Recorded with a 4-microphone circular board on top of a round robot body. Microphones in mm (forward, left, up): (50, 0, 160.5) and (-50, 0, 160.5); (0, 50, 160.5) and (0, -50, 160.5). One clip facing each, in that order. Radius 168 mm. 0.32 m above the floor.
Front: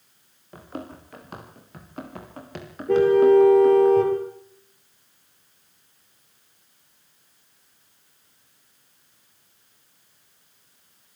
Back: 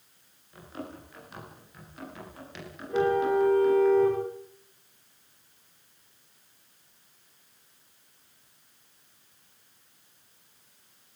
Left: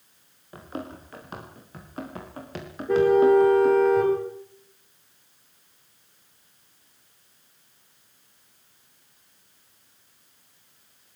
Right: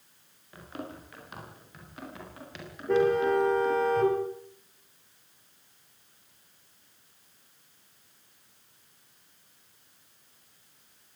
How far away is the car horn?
About 6 m.